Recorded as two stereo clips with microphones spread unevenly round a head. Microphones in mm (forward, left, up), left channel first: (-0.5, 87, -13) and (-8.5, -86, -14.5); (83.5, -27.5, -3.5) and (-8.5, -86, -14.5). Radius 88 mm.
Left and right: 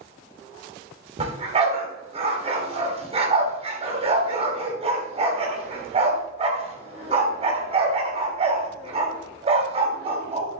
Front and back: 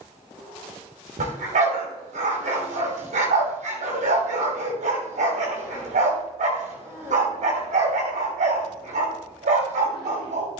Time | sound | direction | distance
1.2 | a dog barking | 150° right | 3 m